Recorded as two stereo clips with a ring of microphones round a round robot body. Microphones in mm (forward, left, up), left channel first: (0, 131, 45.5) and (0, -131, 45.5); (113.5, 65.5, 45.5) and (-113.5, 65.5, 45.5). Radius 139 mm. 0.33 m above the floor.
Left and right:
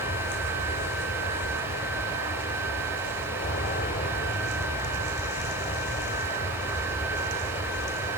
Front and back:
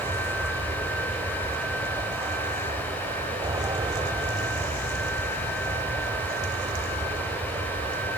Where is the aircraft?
115° left; by 8.2 s 130° left.